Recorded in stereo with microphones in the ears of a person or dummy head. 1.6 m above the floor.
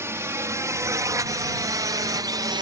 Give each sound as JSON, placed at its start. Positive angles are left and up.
{"t": 0.0, "sound": "a drone", "side_deg": -10}